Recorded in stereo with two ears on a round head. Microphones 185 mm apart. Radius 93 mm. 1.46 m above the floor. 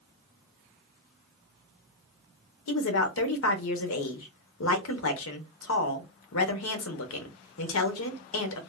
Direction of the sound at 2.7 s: 75° left (ahead or behind).